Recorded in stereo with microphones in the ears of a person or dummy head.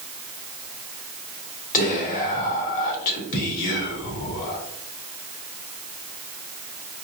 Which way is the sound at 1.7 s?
45° left (ahead or behind).